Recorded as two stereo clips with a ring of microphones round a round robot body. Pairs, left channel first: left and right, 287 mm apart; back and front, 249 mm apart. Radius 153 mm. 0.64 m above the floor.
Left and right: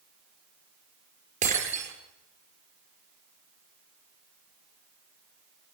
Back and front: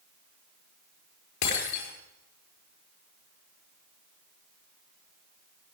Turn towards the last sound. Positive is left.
turn(degrees=-155)